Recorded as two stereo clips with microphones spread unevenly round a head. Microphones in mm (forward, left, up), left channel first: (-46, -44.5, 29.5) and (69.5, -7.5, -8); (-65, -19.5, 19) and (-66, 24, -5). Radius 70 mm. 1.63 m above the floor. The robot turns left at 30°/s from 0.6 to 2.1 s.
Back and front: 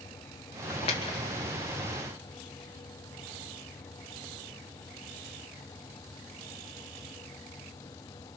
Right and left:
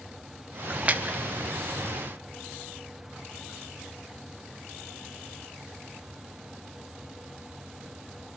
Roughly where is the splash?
Behind left.